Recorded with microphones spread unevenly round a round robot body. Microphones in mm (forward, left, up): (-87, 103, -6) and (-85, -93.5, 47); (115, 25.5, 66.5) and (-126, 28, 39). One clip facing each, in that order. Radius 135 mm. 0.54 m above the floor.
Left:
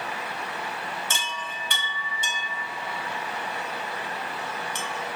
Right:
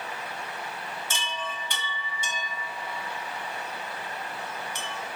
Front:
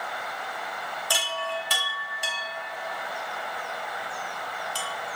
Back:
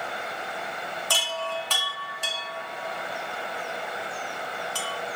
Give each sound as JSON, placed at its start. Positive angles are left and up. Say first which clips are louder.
{"t": 1.1, "sound": "a chime", "louder": "even, even", "azimuth_deg": 80, "distance_m": 0.7}